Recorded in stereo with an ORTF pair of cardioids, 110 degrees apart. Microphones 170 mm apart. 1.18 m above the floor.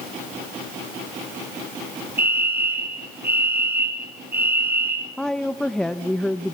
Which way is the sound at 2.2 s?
10° right.